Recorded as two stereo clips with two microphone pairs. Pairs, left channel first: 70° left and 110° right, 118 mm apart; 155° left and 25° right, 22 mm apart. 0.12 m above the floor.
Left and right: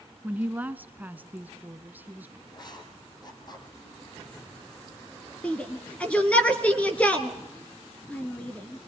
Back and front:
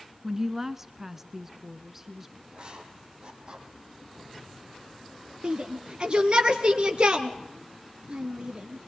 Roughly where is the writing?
Ahead.